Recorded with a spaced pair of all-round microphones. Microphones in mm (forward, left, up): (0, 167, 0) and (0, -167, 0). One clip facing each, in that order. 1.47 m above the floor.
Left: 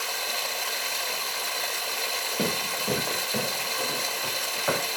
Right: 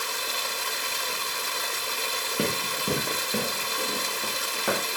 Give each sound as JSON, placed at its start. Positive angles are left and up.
{"t": 0.0, "sound": "running water", "side_deg": -25, "distance_m": 0.7}
{"t": 2.4, "sound": "running footsteps", "side_deg": -20, "distance_m": 3.0}